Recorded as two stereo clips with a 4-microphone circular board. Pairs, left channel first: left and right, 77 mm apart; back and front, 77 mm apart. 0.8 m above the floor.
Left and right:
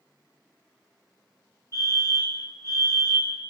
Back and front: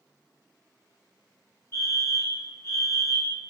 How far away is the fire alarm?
About 3 m.